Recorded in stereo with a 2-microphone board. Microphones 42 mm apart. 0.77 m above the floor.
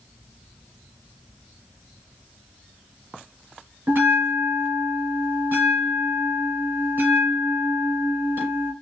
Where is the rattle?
I don't hear a rattle.